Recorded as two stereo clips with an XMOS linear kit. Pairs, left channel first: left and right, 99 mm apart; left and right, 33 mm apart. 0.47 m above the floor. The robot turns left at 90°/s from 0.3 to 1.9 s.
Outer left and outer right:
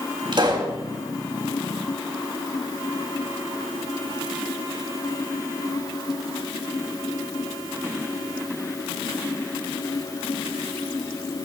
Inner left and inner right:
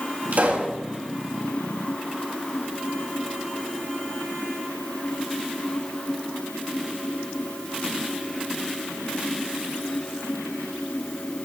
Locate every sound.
0.3 s a pop: 110° right, 3.5 m; by 0.8 s 150° right, 3.5 m